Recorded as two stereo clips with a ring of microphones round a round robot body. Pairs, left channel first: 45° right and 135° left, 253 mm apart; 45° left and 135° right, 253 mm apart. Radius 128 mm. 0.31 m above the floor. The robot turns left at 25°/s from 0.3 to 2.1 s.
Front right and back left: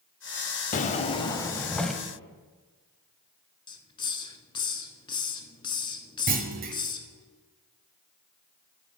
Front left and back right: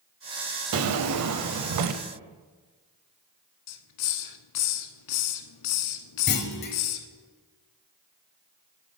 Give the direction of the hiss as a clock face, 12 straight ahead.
11 o'clock.